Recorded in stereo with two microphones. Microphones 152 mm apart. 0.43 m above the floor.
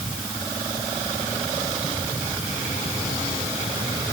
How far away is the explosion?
I don't hear an explosion.